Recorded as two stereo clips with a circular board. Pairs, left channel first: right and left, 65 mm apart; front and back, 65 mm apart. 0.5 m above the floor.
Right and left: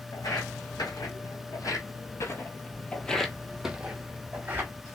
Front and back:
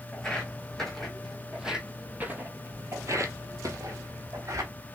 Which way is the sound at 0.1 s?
80° right.